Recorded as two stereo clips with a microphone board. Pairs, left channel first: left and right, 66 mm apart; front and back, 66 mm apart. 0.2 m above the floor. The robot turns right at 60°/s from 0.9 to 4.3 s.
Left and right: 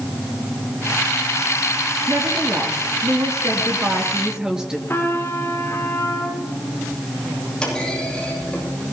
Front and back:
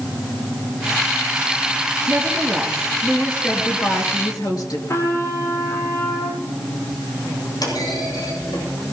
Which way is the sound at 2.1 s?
145° right.